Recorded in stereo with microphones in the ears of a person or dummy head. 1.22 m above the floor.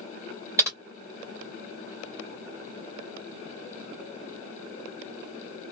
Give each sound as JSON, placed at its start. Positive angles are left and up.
{"t": 0.6, "sound": "typing on a keyboard", "side_deg": -15, "distance_m": 0.9}